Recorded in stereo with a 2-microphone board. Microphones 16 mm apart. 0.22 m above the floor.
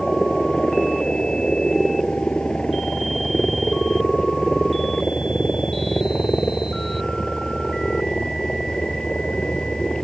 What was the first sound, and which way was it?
A helicopter, 70° left (ahead or behind).